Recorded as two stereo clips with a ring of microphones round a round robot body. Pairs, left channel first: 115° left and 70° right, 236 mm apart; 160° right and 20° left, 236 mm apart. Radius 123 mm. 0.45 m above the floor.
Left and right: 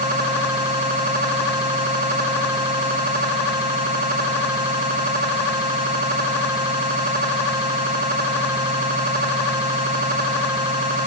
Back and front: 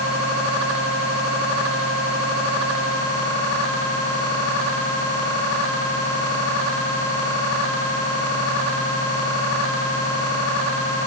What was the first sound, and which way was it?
Only background noise.